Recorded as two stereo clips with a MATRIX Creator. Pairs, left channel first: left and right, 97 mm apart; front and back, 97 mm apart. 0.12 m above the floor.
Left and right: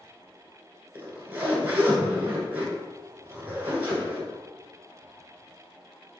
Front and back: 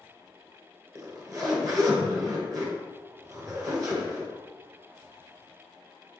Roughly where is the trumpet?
No trumpet in this recording.